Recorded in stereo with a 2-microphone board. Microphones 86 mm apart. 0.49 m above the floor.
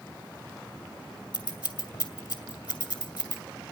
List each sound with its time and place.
1.3 s scissors: 60° left (ahead or behind), 1.7 m